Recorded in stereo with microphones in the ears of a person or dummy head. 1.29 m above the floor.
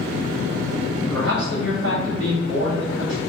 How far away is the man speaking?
About 3.5 m.